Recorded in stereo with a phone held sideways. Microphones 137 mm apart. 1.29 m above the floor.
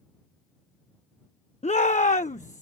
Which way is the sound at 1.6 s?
60° left (ahead or behind).